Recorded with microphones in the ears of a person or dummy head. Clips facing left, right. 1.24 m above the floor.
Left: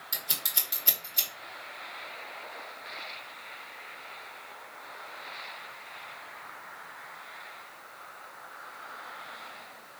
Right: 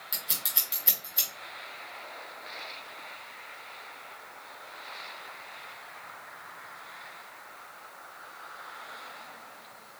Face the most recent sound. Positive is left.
turn(degrees=-5)  # may be behind; listen again after turning